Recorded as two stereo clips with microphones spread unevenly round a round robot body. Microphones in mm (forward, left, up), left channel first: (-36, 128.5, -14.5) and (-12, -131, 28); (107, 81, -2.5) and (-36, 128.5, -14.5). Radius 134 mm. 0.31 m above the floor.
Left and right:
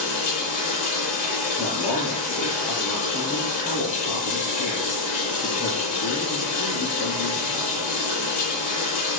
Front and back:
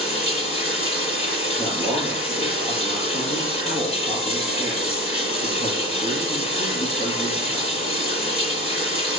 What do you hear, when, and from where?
0.0 s running water: 30° left, 8.5 m
1.6 s a man speaking: 35° left, 6.5 m